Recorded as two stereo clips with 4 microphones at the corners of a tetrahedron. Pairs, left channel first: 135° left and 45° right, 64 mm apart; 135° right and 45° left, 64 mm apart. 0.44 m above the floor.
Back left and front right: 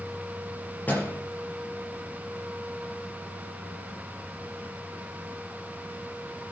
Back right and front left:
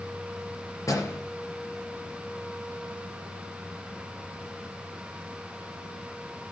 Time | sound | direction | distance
0.9 | a door slam | 165° right | 5.5 m